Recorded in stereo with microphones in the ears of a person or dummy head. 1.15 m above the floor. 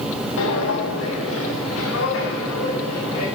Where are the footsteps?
60° left (ahead or behind), 2 m; by 3.3 s 75° left (ahead or behind), 6 m.